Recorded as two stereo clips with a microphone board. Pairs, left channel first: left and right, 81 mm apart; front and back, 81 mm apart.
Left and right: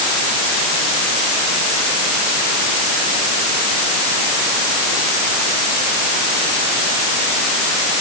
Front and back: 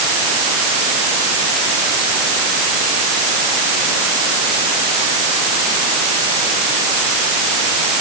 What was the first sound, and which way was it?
Only background noise.